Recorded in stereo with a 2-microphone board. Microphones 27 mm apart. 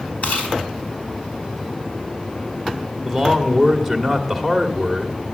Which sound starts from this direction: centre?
A man speaking, at 3.0 s.